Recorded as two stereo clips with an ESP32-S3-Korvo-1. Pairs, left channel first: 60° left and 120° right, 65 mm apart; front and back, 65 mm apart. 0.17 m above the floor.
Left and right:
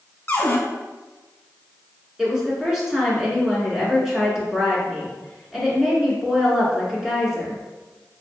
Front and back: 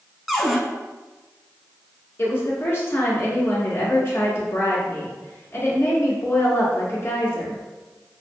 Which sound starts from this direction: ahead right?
A woman speaking, at 2.2 s.